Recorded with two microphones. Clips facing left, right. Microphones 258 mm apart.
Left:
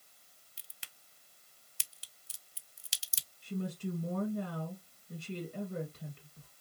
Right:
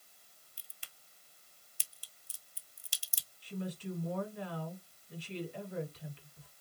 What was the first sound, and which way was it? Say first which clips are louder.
A crack: left 4 dB; 75° left (ahead or behind).